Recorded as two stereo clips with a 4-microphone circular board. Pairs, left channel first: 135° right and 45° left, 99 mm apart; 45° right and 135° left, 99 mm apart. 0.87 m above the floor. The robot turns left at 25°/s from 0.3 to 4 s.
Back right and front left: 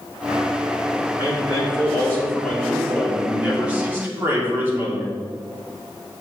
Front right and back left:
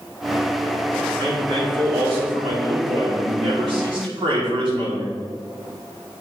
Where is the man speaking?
Straight behind, 2.5 m; by 5.2 s 110° left, 2.5 m.